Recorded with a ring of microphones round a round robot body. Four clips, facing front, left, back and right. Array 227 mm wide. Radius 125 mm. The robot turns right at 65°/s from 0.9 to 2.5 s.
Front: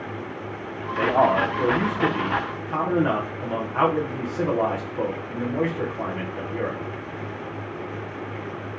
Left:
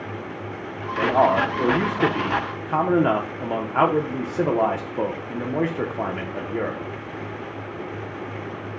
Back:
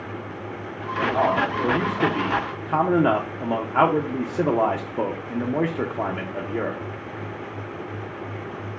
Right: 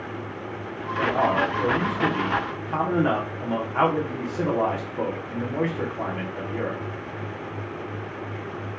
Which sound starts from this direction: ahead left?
A man speaking, at 1.0 s.